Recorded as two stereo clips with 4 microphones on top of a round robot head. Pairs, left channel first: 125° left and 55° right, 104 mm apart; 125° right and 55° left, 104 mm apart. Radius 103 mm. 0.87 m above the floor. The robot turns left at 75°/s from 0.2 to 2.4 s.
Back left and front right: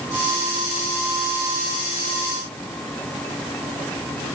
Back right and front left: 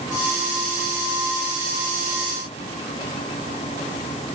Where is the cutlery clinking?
No cutlery clinking in this recording.